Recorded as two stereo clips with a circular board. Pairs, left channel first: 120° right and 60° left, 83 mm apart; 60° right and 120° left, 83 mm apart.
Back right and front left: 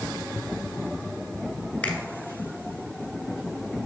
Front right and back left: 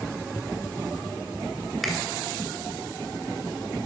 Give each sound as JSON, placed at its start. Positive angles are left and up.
{"t": 1.8, "sound": "a finger snap", "azimuth_deg": -155, "distance_m": 1.2}